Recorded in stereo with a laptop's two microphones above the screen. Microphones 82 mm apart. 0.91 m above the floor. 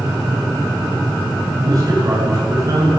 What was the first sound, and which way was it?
A man speaking, 45° right (ahead or behind).